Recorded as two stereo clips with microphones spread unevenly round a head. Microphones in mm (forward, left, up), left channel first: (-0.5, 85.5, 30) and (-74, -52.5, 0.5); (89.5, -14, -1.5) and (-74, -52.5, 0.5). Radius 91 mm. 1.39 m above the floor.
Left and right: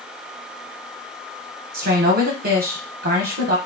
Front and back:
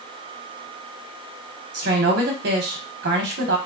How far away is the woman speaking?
About 0.9 m.